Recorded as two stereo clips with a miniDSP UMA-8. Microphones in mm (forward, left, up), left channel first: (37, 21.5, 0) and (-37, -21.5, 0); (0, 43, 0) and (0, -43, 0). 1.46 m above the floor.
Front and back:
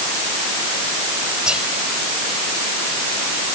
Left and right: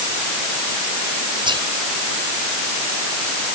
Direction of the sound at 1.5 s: 70° right.